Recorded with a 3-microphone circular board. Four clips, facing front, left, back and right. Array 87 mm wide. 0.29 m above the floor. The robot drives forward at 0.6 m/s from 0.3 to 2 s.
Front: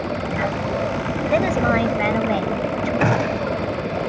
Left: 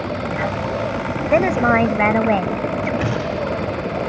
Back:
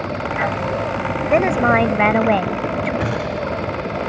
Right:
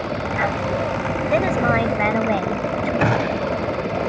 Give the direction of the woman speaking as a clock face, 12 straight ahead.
7 o'clock.